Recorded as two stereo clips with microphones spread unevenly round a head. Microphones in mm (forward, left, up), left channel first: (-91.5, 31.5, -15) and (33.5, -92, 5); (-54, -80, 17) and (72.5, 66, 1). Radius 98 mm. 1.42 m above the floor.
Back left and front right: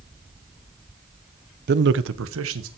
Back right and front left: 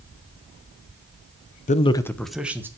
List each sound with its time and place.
1.7 s a man speaking: 75° right, 0.8 m; by 2.7 s 30° right, 1.5 m